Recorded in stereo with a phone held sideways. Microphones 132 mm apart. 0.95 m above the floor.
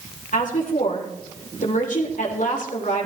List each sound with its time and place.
0.3 s a woman speaking: 70° left (ahead or behind), 3 m